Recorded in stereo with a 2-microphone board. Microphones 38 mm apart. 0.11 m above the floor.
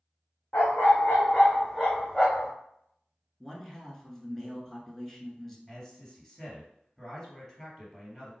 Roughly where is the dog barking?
Left.